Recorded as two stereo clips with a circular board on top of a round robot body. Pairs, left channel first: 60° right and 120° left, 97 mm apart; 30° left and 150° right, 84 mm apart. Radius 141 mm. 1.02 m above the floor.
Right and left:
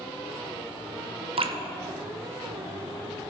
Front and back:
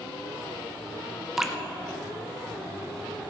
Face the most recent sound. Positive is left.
turn(degrees=125)